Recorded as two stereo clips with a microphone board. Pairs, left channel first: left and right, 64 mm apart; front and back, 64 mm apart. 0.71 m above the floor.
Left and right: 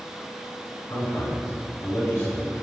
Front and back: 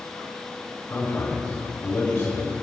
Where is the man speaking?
45° left, 4.5 m.